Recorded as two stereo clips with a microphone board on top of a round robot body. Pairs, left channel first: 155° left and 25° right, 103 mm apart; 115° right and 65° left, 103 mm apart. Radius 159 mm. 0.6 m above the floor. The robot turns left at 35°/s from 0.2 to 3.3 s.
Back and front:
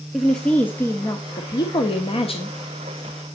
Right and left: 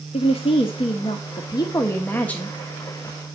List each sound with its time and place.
0.1 s a woman speaking: 115° right, 1.4 m; by 2.6 s 165° left, 1.4 m